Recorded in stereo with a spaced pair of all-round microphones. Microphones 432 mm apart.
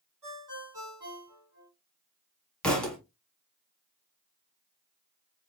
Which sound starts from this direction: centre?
A thud, at 2.6 s.